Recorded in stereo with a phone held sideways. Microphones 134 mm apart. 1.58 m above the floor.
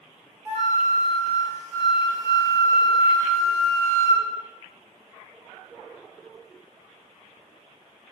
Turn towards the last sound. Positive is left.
turn(degrees=-20)  # may be behind; listen again after turning